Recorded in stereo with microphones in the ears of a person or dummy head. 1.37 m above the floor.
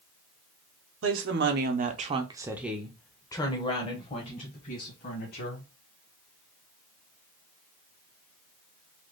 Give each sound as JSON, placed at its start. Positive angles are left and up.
{"t": 1.0, "sound": "a woman speaking", "side_deg": -65, "distance_m": 1.0}